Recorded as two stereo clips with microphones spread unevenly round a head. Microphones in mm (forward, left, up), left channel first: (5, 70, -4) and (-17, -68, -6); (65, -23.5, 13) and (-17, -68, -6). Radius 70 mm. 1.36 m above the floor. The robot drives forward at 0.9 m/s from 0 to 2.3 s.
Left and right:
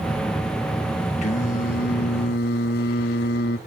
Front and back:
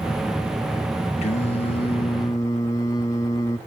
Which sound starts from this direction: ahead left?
Singing, at 1.2 s.